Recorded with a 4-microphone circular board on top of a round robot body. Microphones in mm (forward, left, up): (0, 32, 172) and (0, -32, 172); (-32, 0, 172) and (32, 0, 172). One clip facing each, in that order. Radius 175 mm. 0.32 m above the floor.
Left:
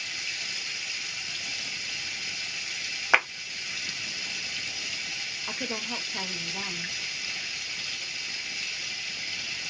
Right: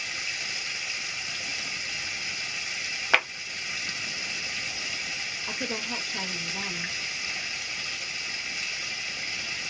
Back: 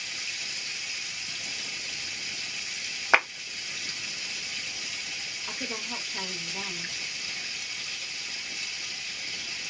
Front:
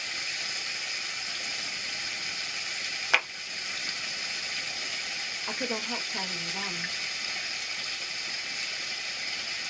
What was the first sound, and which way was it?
Running water, 30° right.